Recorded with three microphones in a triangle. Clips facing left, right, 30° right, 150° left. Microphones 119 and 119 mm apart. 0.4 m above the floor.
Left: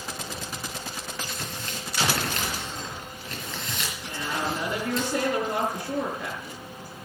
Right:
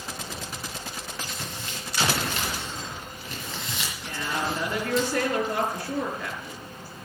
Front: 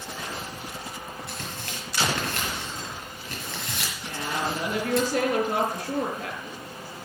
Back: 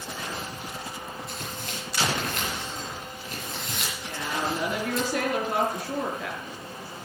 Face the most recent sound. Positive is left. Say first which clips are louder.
# right 1 dB, front 1 dB
turn(degrees=15)